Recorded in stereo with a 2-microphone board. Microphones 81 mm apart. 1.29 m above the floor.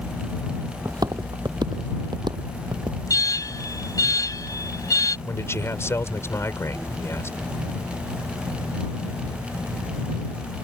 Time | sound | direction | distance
0.8 | footsteps | 55° right (ahead or behind) | ?
3.1 | an alarm | 45° left (ahead or behind) | ?
5.3 | a man speaking | 35° left (ahead or behind) | ?